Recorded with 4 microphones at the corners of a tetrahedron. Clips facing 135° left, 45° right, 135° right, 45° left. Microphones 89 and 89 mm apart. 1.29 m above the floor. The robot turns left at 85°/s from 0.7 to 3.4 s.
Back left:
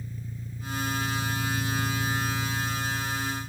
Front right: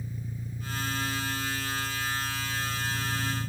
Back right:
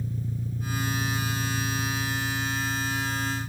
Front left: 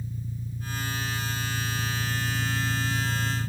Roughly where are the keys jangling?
No keys jangling in this recording.